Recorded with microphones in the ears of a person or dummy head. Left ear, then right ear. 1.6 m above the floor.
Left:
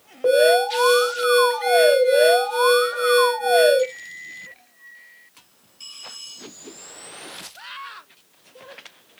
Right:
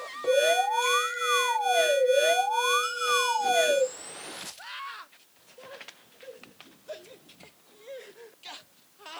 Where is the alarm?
30° left (ahead or behind), 1.6 m.